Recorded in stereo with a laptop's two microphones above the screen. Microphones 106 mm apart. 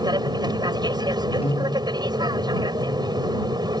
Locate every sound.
0.0 s an aircraft: 40° right (ahead or behind)
1.4 s a piano: 70° left (ahead or behind)